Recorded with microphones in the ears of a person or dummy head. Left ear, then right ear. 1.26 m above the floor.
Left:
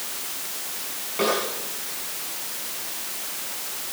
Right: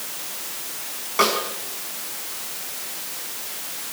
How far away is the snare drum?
About 5 m.